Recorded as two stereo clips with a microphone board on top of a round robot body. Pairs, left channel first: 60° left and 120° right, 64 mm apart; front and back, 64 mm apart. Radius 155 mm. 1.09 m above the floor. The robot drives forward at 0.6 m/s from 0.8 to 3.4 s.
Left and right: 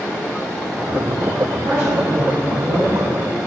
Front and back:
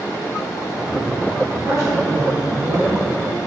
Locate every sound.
1.6 s a woman speaking: 130° right, 2.5 m; by 3.0 s 145° right, 3 m